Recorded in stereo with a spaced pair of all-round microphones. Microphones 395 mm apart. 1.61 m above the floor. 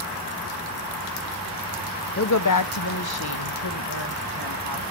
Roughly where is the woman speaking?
Left.